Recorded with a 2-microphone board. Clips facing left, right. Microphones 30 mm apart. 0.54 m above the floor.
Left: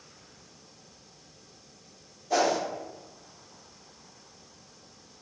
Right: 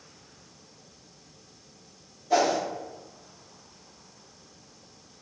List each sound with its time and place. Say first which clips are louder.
2.3 s a whoosh: right 2 dB; 5° right (ahead or behind), 0.8 m